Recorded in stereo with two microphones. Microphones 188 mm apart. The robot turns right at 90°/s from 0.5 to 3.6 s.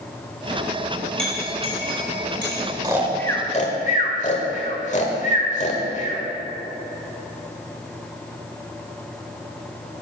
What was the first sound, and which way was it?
A clink, 5° left (ahead or behind).